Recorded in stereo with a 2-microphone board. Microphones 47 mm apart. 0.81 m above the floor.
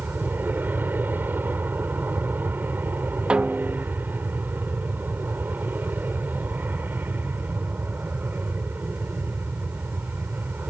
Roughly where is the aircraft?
Right.